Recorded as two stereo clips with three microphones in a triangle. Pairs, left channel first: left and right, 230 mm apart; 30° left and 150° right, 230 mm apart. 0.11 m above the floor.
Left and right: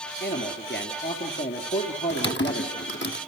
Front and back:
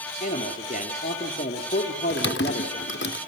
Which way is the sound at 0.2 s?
75° left.